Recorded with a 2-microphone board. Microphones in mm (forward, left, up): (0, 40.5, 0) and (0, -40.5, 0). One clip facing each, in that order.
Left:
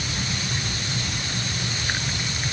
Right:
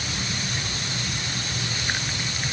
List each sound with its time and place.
Only background noise.